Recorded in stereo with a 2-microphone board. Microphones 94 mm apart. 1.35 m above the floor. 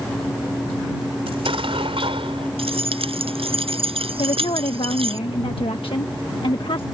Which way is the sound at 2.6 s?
80° right.